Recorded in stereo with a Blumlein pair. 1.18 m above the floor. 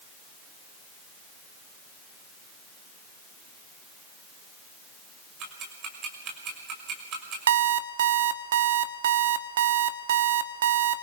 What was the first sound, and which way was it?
Ticking, 35° right.